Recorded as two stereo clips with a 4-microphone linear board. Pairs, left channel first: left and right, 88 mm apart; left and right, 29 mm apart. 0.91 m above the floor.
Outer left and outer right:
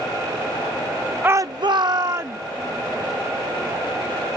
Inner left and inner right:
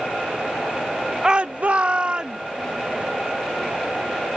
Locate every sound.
1.2 s a shout: 20° right (ahead or behind); by 2.4 s 35° right (ahead or behind)